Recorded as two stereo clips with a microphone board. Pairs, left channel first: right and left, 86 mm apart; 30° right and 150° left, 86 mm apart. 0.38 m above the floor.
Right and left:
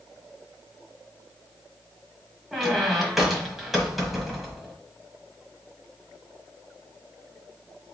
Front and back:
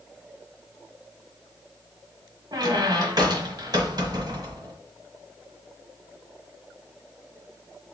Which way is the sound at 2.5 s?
175° left.